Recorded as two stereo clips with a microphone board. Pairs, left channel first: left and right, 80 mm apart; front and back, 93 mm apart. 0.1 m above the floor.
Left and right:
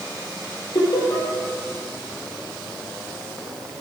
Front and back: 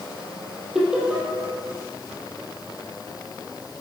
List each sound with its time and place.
0.8 s laughter: 100° left, 3 m